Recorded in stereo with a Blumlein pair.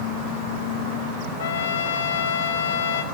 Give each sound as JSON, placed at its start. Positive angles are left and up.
{"t": 1.4, "sound": "a trumpet", "azimuth_deg": 60, "distance_m": 0.5}